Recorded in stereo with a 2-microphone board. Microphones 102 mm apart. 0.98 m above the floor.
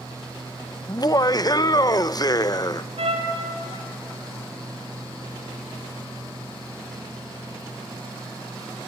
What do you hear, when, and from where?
0.9 s laughter: 40° left (ahead or behind), 0.5 m
3.0 s a trumpet: 75° right (ahead or behind), 4 m